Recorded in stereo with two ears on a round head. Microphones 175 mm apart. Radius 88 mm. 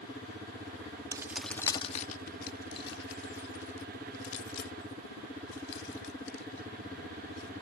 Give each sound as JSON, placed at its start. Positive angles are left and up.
{"t": 1.1, "sound": "keys jangling", "side_deg": -20}